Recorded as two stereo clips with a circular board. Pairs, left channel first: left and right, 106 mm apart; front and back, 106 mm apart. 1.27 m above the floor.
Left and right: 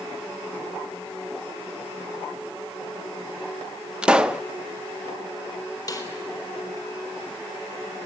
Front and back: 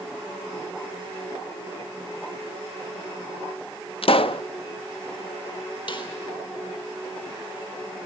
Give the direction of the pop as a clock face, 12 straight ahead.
12 o'clock.